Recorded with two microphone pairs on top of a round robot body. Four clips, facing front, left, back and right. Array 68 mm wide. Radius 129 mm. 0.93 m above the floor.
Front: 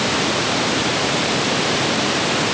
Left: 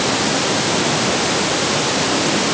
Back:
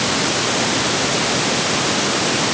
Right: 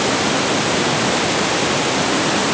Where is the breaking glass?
No breaking glass in this recording.